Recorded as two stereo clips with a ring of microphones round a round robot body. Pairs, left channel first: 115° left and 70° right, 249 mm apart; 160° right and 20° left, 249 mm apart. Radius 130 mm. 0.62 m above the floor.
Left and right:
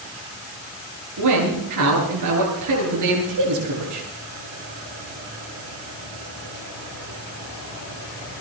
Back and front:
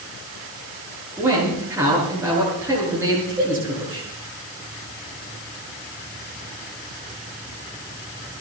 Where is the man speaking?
60° right, 9.5 m.